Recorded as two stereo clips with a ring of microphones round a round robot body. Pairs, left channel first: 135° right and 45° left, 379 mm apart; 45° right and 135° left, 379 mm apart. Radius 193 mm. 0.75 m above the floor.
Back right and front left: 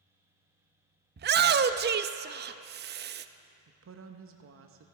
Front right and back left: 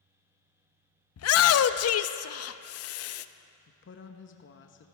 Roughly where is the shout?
Ahead.